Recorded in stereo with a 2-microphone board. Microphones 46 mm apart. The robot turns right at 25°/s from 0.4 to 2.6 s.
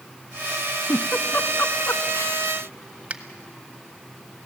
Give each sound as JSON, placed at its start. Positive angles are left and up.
{"t": 0.9, "sound": "a giggle", "side_deg": 65, "distance_m": 0.8}
{"t": 3.1, "sound": "a finger snap", "side_deg": -30, "distance_m": 1.0}